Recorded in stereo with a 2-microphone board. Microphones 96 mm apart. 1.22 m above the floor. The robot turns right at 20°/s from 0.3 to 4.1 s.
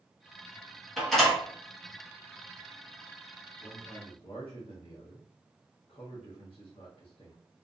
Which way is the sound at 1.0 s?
Centre (ahead or behind).